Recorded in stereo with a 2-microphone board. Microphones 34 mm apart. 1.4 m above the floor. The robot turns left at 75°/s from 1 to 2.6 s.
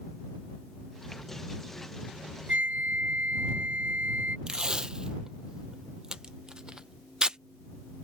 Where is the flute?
60° right (ahead or behind); by 4.4 s 70° right (ahead or behind).